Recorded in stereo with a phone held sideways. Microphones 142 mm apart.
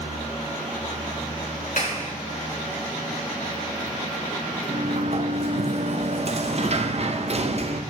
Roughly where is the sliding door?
Right.